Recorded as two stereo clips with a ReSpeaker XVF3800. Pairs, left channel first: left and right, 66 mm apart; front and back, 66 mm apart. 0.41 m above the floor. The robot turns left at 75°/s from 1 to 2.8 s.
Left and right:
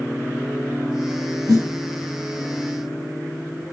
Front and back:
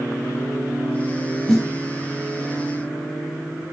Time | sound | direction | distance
1.5 | a snare drum | 85° right | 5.5 m